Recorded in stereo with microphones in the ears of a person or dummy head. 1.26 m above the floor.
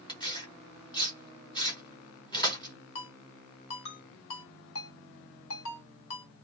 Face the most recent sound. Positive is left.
turn(degrees=70)  # may be behind; listen again after turning